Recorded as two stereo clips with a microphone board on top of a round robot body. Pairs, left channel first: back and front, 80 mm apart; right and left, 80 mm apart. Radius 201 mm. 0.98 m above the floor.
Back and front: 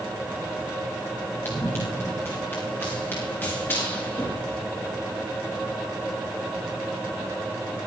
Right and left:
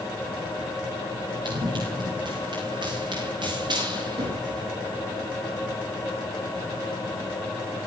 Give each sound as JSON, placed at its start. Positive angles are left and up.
{"t": 1.4, "sound": "running footsteps", "azimuth_deg": 115, "distance_m": 7.5}